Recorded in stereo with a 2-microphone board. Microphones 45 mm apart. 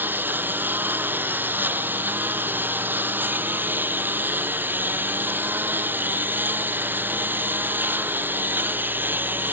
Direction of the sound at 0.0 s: 45° right (ahead or behind).